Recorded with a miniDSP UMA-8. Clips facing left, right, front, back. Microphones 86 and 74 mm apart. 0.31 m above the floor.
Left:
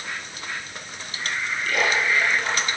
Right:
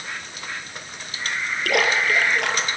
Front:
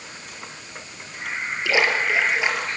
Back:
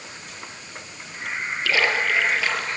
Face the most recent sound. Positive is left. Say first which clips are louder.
# right 2 dB, front 1 dB
turn(degrees=-70)